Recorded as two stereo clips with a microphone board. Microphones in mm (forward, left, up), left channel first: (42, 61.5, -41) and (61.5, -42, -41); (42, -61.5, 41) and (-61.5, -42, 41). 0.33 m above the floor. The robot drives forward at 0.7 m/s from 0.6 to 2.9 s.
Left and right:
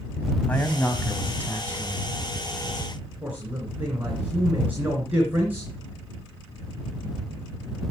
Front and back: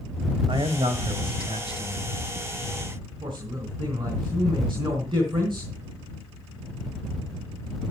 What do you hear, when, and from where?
0.5 s a man speaking: 170° left, 2 m; by 2.1 s 175° left, 3 m
3.2 s a man speaking: 150° right, 3.5 m